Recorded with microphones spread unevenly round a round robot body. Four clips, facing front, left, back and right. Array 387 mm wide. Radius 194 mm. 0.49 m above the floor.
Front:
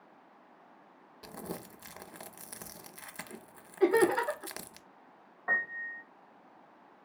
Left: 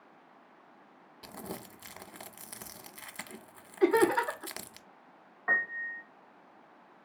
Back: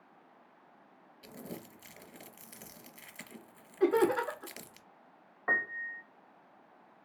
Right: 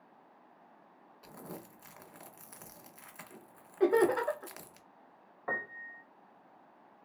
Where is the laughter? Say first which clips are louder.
Left 2 dB, front 2 dB; 105° right, 2.5 m.